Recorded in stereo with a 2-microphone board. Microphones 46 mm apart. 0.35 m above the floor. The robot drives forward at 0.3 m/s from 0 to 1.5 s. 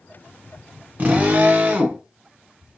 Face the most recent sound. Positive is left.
turn(degrees=-45)  # may be behind; listen again after turning